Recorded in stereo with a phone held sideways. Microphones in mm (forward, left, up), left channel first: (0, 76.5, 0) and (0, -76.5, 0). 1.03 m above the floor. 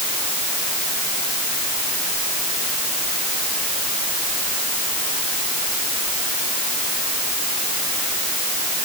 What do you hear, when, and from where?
Only background noise.